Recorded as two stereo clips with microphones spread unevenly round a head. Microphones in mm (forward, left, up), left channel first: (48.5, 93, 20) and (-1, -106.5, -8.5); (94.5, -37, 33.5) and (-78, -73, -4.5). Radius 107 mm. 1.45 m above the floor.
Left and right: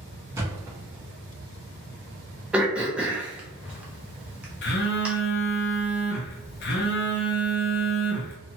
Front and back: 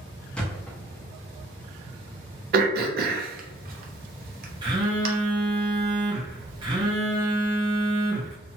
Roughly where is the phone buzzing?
Behind left.